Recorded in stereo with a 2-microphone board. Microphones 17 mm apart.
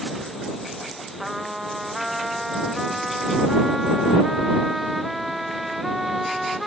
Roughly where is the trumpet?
Centre.